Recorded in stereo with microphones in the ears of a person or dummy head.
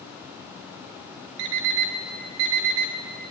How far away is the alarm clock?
About 2 m.